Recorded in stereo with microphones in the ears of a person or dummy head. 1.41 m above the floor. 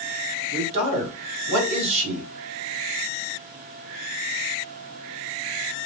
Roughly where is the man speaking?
Right.